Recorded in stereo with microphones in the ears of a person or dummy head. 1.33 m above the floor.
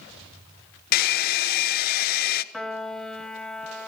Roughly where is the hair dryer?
Left.